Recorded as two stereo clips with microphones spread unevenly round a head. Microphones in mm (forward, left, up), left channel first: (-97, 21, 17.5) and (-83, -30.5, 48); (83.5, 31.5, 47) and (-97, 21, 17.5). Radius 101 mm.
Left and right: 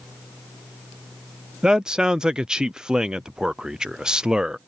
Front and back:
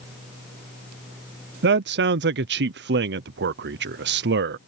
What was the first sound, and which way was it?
A man speaking, 160° right.